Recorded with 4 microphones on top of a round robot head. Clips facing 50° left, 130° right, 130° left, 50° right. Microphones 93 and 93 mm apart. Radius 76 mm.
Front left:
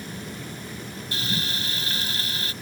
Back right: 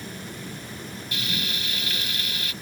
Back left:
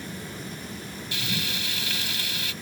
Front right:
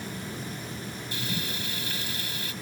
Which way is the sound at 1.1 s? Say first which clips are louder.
Front left 2 dB, back left 2 dB; 110° left.